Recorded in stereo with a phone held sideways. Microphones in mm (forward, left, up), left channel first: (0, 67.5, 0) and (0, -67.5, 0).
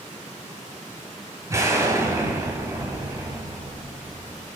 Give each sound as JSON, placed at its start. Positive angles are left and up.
{"t": 1.5, "sound": "an explosion", "side_deg": -25, "distance_m": 1.7}